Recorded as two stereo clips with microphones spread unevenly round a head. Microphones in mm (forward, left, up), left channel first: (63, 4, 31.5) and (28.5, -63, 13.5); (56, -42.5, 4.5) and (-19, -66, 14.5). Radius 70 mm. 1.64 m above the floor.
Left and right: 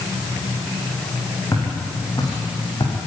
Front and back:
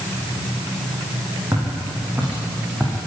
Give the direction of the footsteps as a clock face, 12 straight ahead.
8 o'clock.